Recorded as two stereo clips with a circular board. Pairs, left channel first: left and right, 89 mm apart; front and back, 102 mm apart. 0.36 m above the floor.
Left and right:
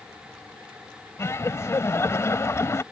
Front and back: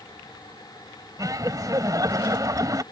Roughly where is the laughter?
Behind left.